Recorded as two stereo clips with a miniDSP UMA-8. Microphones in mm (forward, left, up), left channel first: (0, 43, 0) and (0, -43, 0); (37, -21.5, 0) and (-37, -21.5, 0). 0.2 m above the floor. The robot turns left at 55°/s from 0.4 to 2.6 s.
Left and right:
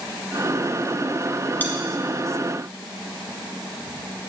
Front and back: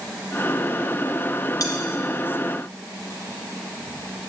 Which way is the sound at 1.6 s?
25° left.